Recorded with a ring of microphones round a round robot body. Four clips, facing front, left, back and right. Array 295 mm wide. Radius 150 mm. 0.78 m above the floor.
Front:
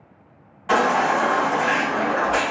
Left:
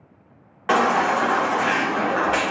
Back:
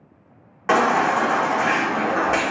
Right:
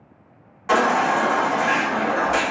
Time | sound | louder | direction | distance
0.7 | a baby crying | even, back 1 dB | 150° left | 0.6 m